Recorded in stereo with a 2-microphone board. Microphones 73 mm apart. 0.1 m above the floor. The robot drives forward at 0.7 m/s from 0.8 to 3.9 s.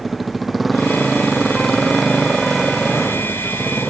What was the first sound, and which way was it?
A motorcycle, centre (ahead or behind).